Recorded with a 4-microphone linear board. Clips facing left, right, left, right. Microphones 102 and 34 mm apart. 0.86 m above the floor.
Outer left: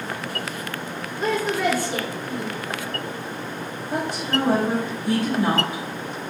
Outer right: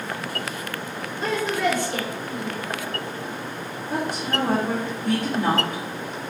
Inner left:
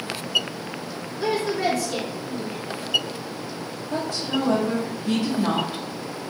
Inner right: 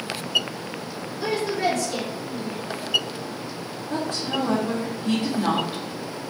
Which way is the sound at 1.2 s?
10° left (ahead or behind).